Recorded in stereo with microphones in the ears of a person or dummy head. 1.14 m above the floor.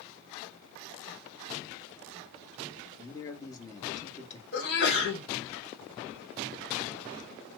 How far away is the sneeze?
About 1.5 m.